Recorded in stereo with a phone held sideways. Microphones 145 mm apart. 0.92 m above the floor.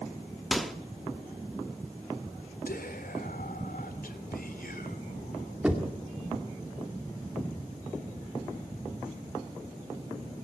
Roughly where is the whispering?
Left.